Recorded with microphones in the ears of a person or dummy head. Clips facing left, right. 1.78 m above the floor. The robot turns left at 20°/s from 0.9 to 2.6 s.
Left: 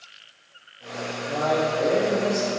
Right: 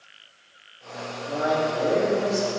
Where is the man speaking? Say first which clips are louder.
Even; centre (ahead or behind), 2.5 m; by 2.5 s 25° left (ahead or behind), 2.5 m.